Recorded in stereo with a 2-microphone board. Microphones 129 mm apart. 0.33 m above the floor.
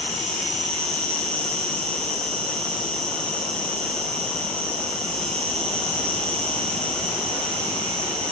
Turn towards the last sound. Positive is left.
turn(degrees=-55)  # may be behind; listen again after turning